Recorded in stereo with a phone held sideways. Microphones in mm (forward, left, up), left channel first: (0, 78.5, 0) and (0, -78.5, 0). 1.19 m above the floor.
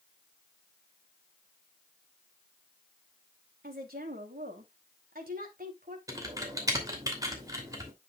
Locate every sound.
3.6 s a woman speaking: 80° right, 3 m; by 6.0 s 65° right (ahead or behind), 3 m
6.1 s typing on a keyboard: 20° right (ahead or behind), 2.5 m